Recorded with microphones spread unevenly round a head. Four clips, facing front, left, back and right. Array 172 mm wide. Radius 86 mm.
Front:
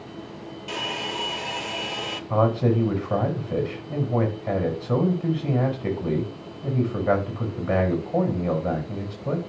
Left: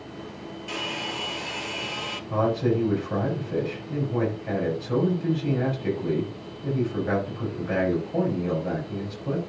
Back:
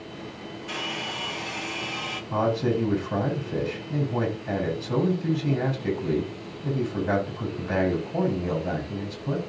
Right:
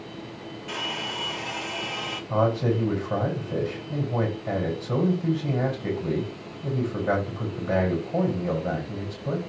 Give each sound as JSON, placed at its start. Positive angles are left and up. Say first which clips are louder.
{"t": 0.7, "sound": "a hair dryer", "louder": "even, front 3 dB", "azimuth_deg": 20, "distance_m": 2.5}
{"t": 2.3, "sound": "a man speaking", "louder": "even, front 3 dB", "azimuth_deg": -15, "distance_m": 8.0}